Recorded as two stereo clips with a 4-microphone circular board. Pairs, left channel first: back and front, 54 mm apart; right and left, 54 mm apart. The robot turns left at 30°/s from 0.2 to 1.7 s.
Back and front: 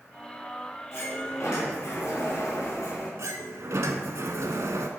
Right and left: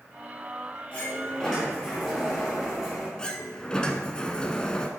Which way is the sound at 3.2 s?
15° right.